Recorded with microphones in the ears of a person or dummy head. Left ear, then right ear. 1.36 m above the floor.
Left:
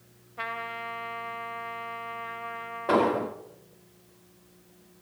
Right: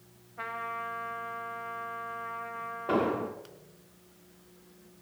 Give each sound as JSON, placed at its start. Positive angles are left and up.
{"t": 0.4, "sound": "a trumpet", "side_deg": 25, "distance_m": 1.2}
{"t": 2.9, "sound": "an explosion", "side_deg": 30, "distance_m": 1.2}